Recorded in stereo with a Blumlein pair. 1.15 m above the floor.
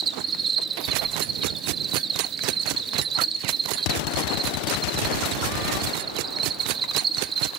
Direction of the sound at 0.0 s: 25° right.